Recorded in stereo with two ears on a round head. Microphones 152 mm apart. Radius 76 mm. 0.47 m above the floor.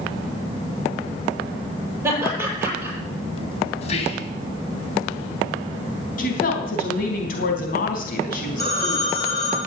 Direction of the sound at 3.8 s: 40° left (ahead or behind).